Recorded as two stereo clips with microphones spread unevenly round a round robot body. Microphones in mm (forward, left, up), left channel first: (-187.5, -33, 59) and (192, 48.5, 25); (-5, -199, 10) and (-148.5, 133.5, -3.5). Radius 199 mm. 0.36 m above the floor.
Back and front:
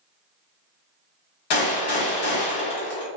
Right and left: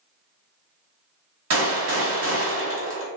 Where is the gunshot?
165° left, 1.8 m.